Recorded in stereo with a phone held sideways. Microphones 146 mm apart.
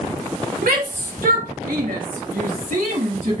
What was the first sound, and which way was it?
A shout, 75° right (ahead or behind).